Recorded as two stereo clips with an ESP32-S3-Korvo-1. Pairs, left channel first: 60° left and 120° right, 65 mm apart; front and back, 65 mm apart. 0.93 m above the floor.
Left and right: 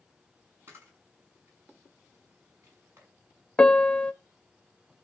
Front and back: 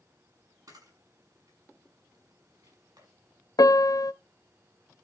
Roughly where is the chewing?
No chewing in this recording.